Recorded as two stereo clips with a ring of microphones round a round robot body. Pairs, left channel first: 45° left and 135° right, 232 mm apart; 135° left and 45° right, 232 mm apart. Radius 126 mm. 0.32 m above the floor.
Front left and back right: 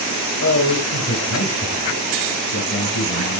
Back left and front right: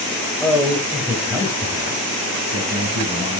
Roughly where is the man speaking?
Ahead left.